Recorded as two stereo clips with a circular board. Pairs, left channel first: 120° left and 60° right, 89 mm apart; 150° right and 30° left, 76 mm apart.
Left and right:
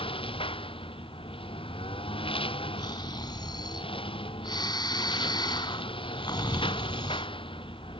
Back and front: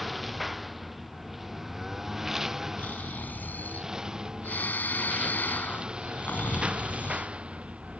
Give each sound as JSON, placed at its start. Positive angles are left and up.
{"t": 0.0, "sound": "a lawn mower", "azimuth_deg": 120}
{"t": 2.8, "sound": "snoring", "azimuth_deg": 145}